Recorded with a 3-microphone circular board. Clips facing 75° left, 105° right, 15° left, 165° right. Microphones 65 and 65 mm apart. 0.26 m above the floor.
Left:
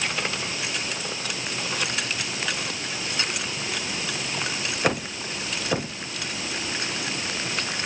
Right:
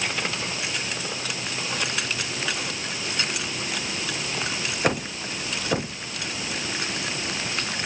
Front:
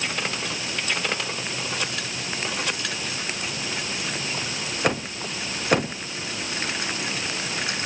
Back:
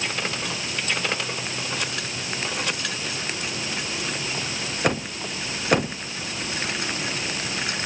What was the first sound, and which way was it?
Only background noise.